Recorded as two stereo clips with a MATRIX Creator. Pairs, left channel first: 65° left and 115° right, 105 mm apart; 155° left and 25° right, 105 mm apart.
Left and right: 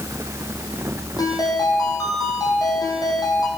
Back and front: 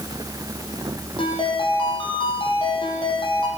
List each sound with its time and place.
1.2 s a ringtone: 120° left, 7 m